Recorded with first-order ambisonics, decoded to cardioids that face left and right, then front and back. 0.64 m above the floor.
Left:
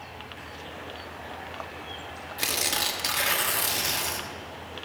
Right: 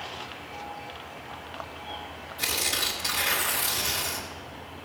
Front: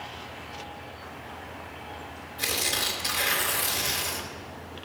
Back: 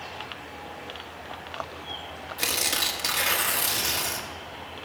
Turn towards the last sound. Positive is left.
turn(degrees=140)